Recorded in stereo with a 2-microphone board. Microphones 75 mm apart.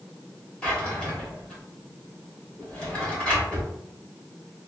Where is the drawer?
15° left (ahead or behind), 1.4 m.